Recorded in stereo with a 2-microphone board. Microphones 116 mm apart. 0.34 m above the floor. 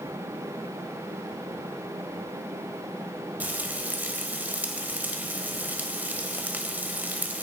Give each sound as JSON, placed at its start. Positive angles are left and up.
{"t": 3.4, "sound": "frying", "side_deg": -15, "distance_m": 1.1}